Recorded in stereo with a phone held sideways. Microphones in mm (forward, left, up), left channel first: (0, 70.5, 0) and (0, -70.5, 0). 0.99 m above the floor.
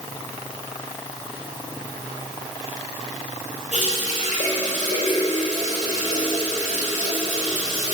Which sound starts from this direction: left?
A running tap, at 3.7 s.